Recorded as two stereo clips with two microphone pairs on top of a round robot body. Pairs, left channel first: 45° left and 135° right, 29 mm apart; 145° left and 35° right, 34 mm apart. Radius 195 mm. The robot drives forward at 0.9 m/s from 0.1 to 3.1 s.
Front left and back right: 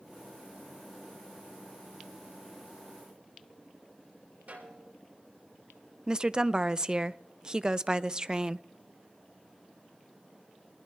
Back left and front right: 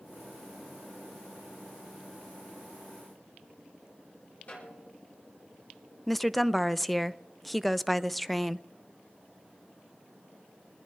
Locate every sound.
4.5 s a snare drum: 170° right, 5.5 m
6.1 s a woman speaking: 130° right, 0.7 m